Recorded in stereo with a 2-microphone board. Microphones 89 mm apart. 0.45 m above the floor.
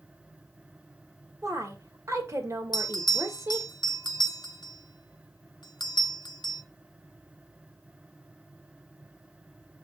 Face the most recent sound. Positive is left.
turn(degrees=60)  # may be behind; listen again after turning